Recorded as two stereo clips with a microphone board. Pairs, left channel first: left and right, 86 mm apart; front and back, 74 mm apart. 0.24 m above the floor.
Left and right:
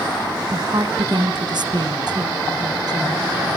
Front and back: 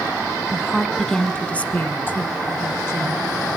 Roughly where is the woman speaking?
Right.